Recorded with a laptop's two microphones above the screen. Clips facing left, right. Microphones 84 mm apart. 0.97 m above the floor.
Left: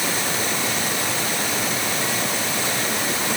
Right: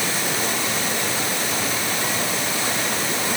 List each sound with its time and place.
Only background noise.